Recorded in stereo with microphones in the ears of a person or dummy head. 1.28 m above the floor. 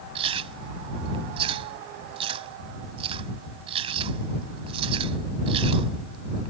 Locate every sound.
0.1 s chewing: 35° right (ahead or behind)